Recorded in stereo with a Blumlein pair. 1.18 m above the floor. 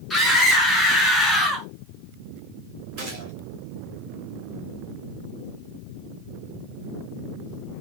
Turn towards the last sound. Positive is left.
turn(degrees=-35)